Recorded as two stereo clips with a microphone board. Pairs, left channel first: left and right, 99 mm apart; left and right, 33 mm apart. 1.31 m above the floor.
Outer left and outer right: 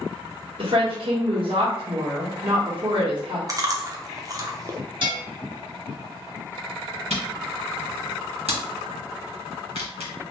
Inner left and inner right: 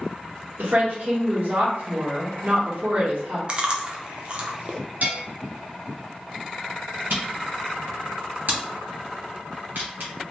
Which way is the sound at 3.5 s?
35° right (ahead or behind).